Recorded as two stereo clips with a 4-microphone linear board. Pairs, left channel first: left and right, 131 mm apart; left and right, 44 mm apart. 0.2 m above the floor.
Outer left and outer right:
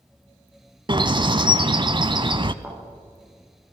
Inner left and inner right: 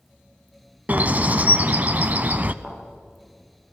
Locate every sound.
0.9 s a bird: 35° right (ahead or behind), 0.8 m
2.6 s a thud: 15° right (ahead or behind), 9.5 m